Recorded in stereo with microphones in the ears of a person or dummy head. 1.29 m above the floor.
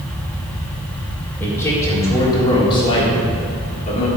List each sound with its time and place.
1.4 s a man speaking: 10° left (ahead or behind), 3.5 m; by 4.1 s 40° left (ahead or behind), 3.5 m